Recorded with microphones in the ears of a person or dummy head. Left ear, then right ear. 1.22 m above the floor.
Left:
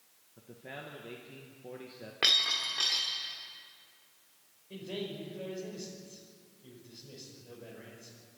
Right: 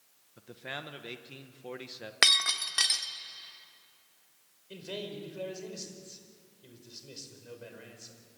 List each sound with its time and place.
0.4 s a man speaking: 50° right (ahead or behind), 1.2 m
2.2 s breaking glass: 65° right (ahead or behind), 1.3 m
4.7 s a man speaking: 55° right (ahead or behind), 5.5 m